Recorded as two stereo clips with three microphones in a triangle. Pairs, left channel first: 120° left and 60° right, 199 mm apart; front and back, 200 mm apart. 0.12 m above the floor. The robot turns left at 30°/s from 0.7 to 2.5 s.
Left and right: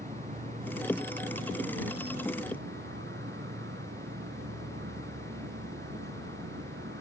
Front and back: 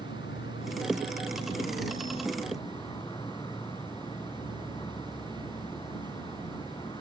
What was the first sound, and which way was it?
An insect, 15° right.